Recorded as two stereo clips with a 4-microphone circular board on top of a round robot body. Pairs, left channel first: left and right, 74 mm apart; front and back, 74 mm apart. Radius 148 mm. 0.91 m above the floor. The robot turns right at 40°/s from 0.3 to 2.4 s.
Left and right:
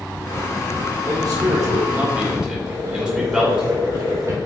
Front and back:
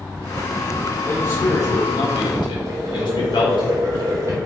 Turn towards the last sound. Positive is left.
turn(degrees=-140)